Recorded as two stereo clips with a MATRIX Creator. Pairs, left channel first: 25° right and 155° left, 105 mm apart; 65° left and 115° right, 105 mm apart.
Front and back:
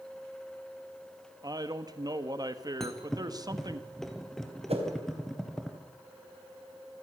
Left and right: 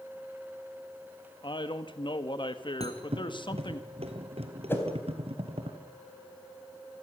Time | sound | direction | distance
1.4 | a man speaking | 105° left | 1.5 m
2.8 | a thud | 110° right | 2.5 m
4.7 | a whoosh | 135° left | 4 m